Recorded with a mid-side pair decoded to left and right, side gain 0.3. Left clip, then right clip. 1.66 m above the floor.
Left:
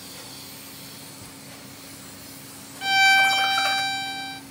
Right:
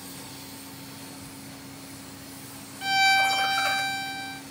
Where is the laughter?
55° left, 2.0 m; by 3.8 s 45° left, 4.5 m.